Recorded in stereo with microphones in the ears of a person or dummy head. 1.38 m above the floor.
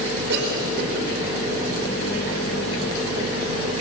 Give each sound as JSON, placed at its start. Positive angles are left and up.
{"t": 0.3, "sound": "a cough", "side_deg": -75, "distance_m": 5.0}